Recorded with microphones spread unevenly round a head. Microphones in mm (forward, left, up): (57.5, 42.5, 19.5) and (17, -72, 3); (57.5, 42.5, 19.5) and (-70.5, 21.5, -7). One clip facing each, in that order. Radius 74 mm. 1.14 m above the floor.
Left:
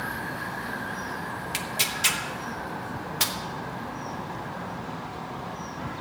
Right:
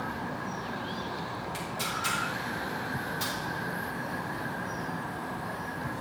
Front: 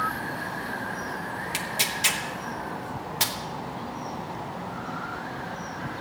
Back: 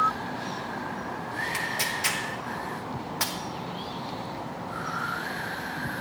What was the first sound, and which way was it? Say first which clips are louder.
Tearing paper: left 2 dB, even; 75° left.